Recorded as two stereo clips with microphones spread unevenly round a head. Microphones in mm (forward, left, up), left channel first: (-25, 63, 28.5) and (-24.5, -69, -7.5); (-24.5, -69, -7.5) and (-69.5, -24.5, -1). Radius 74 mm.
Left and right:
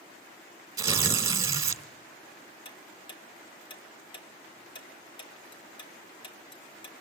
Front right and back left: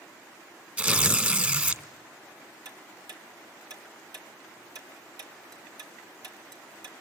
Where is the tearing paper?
165° right, 2.0 m.